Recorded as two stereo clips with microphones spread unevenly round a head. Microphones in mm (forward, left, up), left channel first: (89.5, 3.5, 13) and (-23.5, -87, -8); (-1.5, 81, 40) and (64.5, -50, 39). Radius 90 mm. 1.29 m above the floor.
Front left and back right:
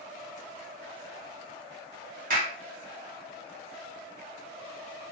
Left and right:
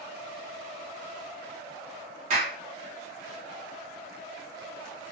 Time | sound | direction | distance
2.3 | a clap | 115° right | 0.9 m